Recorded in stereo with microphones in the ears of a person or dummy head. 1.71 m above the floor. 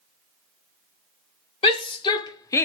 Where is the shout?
30° left (ahead or behind), 1.1 m; by 2.6 s 10° left (ahead or behind), 0.6 m.